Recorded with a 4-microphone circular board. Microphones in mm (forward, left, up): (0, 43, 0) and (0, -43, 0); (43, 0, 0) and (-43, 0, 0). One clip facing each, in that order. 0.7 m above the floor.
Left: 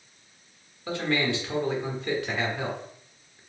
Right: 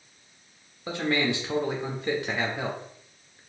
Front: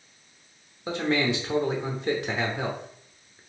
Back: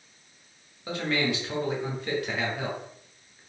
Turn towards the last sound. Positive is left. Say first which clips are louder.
# even, front 3 dB
turn(degrees=-40)